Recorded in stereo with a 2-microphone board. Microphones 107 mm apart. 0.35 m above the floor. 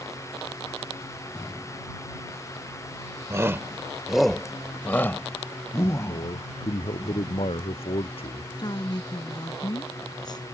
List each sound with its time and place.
3.3 s a shout: 25° right (ahead or behind); by 7.0 s 35° left (ahead or behind)
6.0 s a man speaking: 60° left (ahead or behind)
8.6 s a woman speaking: 40° left (ahead or behind)